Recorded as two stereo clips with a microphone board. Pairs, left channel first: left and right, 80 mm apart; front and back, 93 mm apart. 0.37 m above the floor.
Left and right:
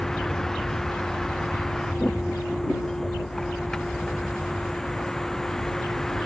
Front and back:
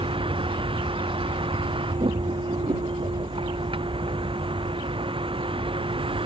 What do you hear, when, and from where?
0.0 s a vehicle: 175° left